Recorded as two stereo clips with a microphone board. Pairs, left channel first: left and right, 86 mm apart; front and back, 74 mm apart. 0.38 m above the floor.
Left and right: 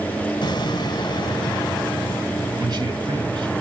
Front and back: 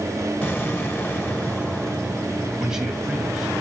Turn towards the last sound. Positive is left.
turn(degrees=-100)